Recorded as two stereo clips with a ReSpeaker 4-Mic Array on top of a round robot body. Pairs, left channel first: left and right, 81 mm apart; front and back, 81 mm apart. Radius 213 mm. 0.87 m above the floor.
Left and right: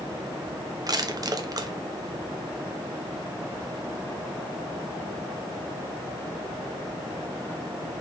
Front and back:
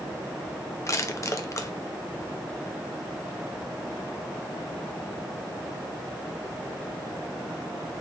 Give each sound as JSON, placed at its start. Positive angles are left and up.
{"t": 0.9, "sound": "crushing", "azimuth_deg": -50, "distance_m": 1.3}